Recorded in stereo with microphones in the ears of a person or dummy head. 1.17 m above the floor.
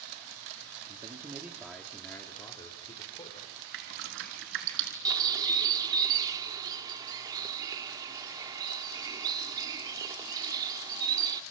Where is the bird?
20° right (ahead or behind), 1.6 m.